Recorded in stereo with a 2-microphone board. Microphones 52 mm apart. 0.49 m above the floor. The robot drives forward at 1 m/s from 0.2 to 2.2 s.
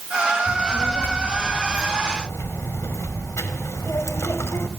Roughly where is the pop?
I don't hear a pop.